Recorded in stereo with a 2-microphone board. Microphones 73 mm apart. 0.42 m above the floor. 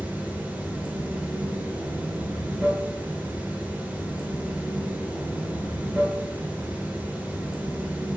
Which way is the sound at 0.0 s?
20° right (ahead or behind).